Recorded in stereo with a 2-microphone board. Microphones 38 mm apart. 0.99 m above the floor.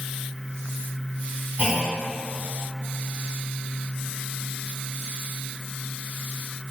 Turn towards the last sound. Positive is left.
turn(degrees=-45)  # may be behind; listen again after turning